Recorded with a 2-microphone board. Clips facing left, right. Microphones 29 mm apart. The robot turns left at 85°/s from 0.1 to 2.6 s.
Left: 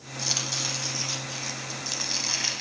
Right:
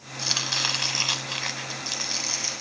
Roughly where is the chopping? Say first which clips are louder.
Right 4 dB; ahead.